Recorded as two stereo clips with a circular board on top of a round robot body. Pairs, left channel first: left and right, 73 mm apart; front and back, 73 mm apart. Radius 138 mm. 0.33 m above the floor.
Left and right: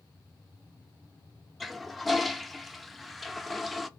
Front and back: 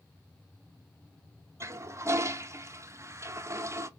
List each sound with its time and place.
1.6 s a toilet flushing: straight behind, 0.6 m